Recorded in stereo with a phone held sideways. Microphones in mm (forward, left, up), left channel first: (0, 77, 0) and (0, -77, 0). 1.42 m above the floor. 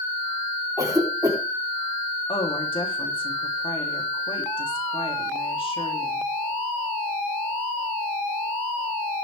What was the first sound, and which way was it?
A cough, 25° right (ahead or behind).